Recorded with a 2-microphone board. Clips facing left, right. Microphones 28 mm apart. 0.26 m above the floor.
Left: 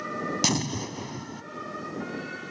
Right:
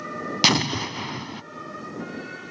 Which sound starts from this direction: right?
An explosion, at 0.4 s.